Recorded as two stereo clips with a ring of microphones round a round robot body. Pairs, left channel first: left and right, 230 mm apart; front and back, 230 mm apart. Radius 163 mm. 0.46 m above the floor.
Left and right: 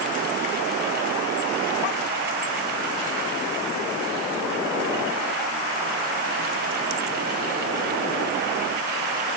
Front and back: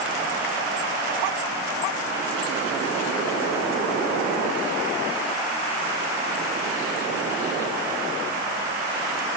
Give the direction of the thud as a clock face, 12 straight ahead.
No thud in this recording.